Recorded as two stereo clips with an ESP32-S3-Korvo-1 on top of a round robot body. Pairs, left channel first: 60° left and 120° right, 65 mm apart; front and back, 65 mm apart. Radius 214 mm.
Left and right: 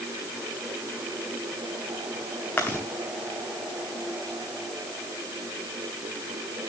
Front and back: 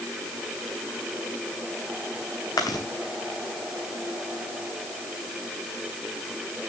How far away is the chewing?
About 0.8 m.